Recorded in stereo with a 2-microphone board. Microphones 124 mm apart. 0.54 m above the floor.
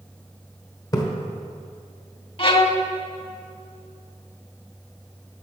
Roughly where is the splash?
Left.